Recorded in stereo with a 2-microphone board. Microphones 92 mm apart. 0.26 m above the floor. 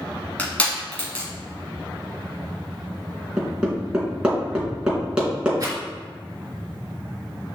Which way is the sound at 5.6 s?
35° right (ahead or behind).